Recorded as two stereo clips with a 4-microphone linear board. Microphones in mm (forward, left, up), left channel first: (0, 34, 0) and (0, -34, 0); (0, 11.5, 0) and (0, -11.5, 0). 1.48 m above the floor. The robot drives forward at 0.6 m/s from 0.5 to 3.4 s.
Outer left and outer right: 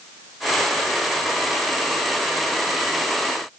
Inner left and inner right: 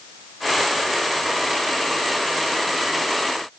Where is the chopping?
I don't hear chopping.